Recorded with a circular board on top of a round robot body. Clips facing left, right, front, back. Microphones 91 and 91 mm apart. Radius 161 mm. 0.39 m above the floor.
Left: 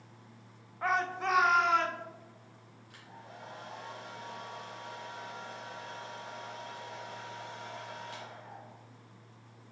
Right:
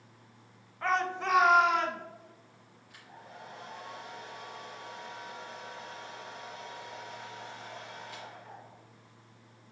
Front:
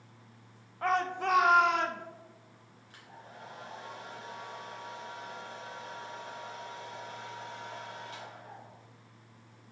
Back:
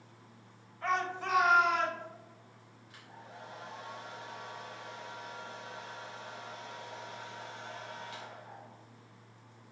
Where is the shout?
15° left, 1.2 m; by 2.0 s 10° right, 1.7 m.